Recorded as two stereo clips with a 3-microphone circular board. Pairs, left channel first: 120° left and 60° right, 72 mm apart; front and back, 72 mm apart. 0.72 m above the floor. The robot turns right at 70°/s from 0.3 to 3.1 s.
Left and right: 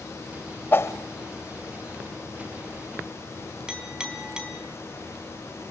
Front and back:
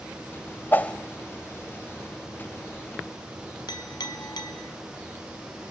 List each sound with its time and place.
0.7 s a whoosh: 60° left, 1.0 m; by 0.9 s 75° left, 1.0 m
3.7 s a clink: 15° left, 4.5 m